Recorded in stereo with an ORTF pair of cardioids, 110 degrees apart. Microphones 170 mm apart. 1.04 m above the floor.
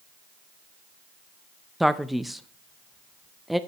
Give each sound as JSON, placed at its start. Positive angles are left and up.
{"t": 1.8, "sound": "a man speaking", "azimuth_deg": 0, "distance_m": 0.6}